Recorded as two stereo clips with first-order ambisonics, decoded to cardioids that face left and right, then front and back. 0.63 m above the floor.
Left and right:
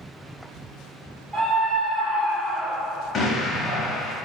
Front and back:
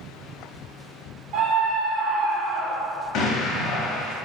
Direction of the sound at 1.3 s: 170° right.